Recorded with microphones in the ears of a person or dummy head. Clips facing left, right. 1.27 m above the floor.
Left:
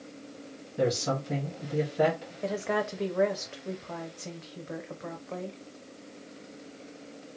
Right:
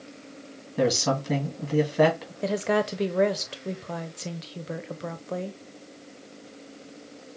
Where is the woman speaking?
45° right (ahead or behind), 0.7 m.